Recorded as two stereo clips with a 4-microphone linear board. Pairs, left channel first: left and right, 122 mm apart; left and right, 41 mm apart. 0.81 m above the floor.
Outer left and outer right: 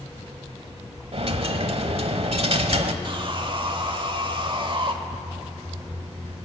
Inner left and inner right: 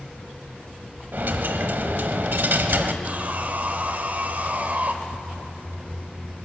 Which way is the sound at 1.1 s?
55° right (ahead or behind).